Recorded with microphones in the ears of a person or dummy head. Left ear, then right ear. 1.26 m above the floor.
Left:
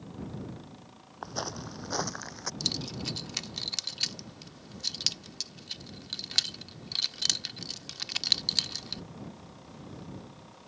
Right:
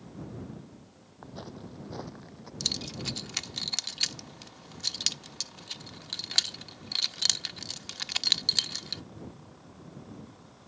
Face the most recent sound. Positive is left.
turn(degrees=-20)  # may be behind; listen again after turning